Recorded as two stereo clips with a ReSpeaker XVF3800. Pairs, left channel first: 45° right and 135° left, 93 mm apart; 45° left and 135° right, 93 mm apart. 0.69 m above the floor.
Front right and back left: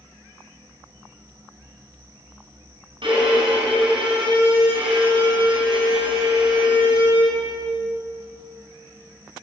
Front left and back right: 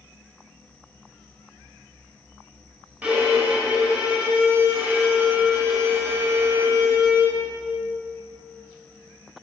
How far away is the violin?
About 4 m.